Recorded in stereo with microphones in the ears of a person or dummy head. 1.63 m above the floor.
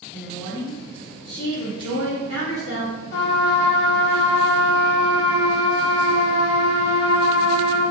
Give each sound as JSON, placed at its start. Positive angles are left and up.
{"t": 0.1, "sound": "a woman speaking", "side_deg": -10, "distance_m": 0.8}
{"t": 3.1, "sound": "a trumpet", "side_deg": 70, "distance_m": 1.3}